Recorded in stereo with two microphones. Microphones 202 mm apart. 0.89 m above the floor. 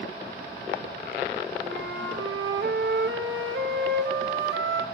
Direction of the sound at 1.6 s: 65° right (ahead or behind).